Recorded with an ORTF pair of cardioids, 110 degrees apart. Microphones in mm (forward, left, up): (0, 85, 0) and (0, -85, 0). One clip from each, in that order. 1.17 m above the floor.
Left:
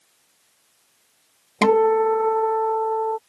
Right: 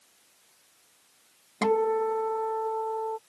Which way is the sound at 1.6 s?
45° left.